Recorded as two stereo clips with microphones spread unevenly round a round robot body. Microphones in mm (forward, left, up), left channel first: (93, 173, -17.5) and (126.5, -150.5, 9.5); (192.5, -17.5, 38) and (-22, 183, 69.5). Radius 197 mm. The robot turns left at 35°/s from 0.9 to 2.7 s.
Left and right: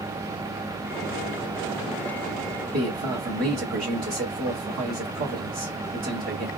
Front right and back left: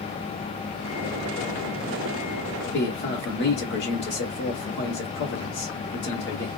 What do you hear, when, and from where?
2.7 s a man speaking: 25° right, 1.3 m